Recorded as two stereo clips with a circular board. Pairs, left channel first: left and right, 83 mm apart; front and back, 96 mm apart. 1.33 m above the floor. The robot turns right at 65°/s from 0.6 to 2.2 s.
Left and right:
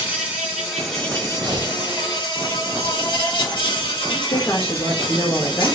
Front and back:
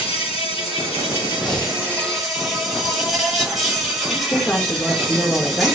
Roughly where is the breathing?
Right.